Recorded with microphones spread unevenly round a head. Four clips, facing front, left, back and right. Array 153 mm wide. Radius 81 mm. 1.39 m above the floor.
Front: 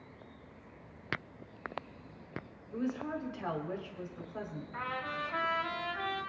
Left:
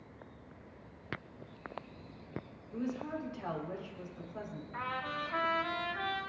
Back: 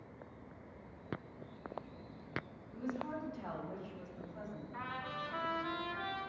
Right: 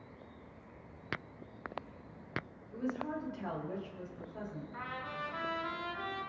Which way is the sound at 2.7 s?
10° left.